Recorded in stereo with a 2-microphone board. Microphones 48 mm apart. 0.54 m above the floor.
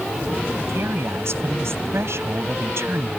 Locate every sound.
0.7 s a woman speaking: 70° right (ahead or behind)